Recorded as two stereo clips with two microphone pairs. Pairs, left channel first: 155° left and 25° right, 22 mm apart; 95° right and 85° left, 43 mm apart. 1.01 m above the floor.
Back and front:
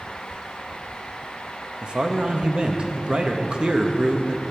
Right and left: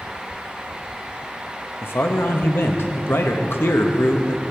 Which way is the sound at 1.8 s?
70° right.